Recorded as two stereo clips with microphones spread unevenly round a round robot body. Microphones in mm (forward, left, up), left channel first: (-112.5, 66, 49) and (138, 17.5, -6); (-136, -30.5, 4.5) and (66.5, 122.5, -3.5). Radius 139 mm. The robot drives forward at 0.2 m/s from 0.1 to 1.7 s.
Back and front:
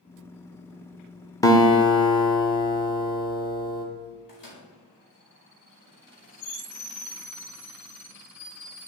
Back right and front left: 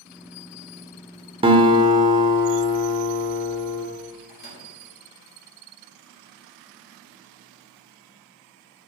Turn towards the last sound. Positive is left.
turn(degrees=165)